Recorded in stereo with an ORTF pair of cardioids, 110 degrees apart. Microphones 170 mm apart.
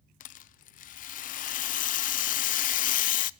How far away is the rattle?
About 0.5 m.